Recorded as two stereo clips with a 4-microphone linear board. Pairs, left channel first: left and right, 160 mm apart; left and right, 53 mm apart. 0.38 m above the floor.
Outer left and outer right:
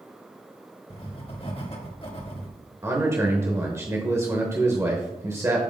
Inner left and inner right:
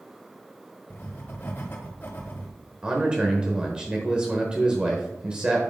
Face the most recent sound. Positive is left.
turn(degrees=-15)  # may be behind; listen again after turning